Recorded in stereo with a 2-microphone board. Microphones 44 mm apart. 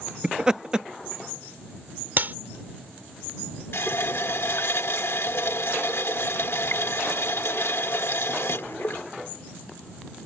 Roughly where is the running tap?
Left.